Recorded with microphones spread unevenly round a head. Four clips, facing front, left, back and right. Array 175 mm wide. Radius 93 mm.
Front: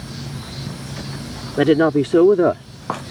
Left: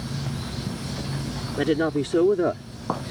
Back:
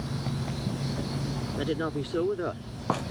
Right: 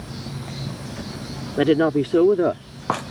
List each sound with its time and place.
1.6 s a woman speaking: 25° right; by 2.6 s 10° right